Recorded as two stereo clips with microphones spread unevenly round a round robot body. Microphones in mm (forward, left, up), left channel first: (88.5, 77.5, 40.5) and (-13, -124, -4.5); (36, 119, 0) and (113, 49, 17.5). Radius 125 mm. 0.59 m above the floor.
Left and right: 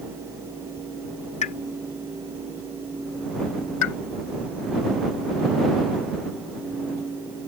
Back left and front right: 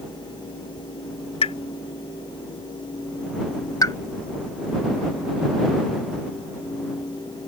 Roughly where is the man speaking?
I don't hear a man speaking.